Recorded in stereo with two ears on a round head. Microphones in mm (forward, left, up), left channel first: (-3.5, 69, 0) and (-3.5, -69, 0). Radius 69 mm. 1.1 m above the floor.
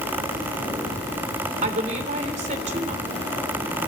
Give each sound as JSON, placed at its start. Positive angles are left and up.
{"t": 1.6, "sound": "a woman speaking", "side_deg": -50, "distance_m": 3.0}